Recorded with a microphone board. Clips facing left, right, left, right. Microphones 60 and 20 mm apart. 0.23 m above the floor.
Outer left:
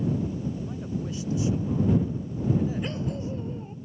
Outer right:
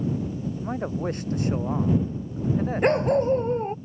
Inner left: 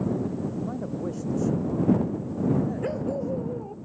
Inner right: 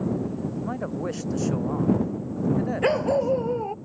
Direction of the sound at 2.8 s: 60° right (ahead or behind).